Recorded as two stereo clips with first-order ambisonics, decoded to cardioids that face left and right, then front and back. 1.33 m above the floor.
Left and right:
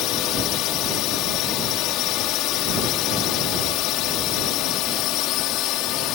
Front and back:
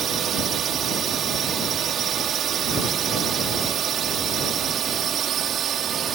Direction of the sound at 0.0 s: 120° left.